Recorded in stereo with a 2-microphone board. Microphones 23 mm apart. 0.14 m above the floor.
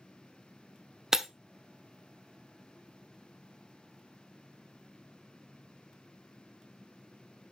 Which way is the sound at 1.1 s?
20° right (ahead or behind).